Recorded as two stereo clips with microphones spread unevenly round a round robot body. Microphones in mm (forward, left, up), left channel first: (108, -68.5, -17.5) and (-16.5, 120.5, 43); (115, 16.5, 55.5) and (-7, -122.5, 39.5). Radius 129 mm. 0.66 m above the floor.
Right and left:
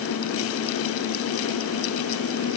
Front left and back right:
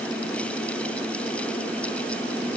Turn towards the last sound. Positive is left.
No sound to turn to.